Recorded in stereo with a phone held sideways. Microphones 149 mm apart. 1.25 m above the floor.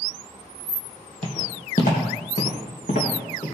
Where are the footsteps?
50° left (ahead or behind), 2.5 m; by 3.5 s 70° left (ahead or behind), 4 m.